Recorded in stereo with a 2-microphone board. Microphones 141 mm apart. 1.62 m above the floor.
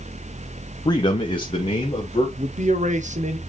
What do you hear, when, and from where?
0.8 s a man speaking: 30° left (ahead or behind), 0.7 m; by 2.3 s 45° left (ahead or behind), 1.7 m
2.4 s a man speaking: 60° right (ahead or behind), 1.0 m